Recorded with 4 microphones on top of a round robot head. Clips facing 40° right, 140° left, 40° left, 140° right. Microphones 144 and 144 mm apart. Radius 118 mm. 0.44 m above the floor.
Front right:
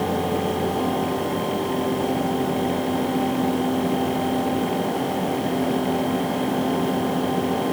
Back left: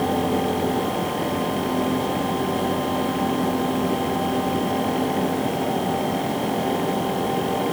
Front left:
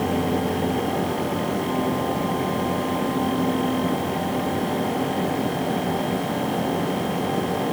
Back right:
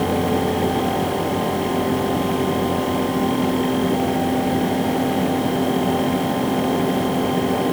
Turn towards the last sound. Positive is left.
No sound to turn to.